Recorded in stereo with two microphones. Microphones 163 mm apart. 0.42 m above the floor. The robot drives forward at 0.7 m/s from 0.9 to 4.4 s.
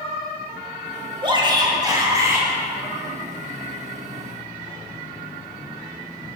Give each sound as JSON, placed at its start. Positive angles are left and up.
{"t": 1.2, "sound": "a shout", "side_deg": -30, "distance_m": 1.1}